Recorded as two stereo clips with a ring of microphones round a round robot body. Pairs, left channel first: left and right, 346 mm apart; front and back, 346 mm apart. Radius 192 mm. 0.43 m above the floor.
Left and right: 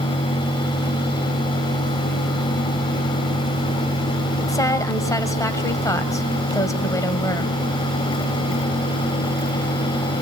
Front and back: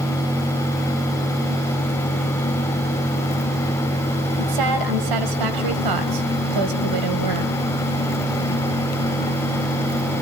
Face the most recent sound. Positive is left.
turn(degrees=170)